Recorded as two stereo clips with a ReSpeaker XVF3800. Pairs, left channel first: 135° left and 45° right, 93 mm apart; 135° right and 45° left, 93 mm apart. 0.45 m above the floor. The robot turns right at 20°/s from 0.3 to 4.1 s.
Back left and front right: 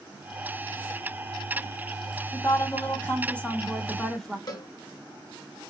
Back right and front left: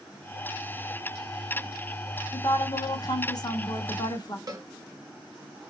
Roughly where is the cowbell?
Left.